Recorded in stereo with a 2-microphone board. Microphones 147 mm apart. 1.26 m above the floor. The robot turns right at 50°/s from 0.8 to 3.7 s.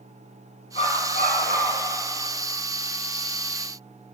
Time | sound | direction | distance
0.8 | a dog barking | 55° left | 5.5 m